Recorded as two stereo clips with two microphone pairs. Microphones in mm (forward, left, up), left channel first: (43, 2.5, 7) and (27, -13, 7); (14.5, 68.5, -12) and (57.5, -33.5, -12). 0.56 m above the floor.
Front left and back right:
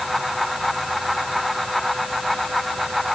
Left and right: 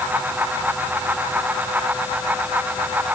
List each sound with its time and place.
Only background noise.